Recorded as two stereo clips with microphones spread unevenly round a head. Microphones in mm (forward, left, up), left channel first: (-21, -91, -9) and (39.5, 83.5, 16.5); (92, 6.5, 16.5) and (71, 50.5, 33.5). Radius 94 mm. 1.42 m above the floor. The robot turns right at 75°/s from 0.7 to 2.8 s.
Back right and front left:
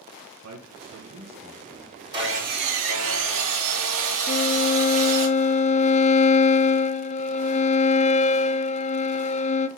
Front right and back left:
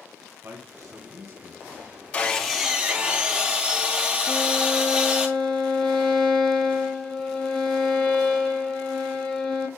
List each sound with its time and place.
0.4 s a man speaking: 75° left, 2 m; by 1.9 s 165° left, 2 m
2.1 s sawing: straight ahead, 3.5 m; by 5.3 s 50° left, 3.5 m
4.3 s a violin: 165° right, 0.5 m